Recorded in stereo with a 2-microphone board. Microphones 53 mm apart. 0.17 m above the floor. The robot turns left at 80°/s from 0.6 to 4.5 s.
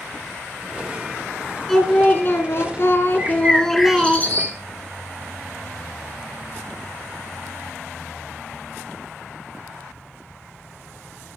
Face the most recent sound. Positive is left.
turn(degrees=115)